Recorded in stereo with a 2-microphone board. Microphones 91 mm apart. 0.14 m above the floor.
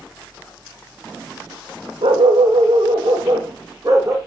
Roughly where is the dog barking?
Right.